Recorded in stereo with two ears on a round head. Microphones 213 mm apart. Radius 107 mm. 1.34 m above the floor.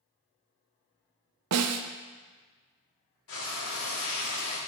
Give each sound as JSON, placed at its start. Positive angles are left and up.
{"t": 1.5, "sound": "a snare drum", "side_deg": -75, "distance_m": 0.5}
{"t": 3.3, "sound": "frying", "side_deg": 65, "distance_m": 1.9}